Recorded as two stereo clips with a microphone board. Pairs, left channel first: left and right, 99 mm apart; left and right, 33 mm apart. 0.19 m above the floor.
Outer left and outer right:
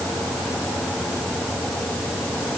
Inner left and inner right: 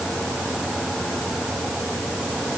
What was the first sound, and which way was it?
Only background noise.